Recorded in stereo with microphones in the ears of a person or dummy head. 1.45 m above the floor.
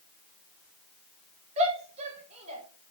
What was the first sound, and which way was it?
A shout, 30° right (ahead or behind).